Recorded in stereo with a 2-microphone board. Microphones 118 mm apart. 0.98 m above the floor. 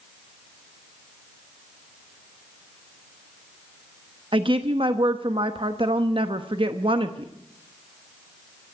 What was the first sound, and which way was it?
A woman speaking, 45° right (ahead or behind).